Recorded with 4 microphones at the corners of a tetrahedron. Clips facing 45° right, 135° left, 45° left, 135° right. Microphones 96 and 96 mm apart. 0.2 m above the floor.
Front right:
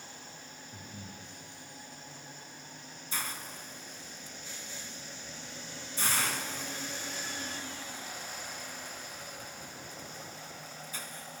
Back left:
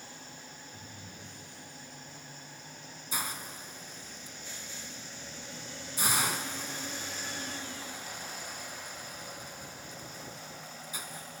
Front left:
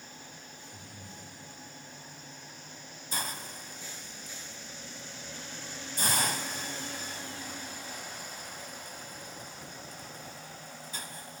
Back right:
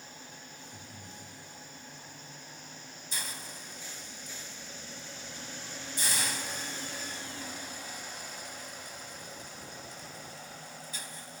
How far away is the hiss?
About 0.6 m.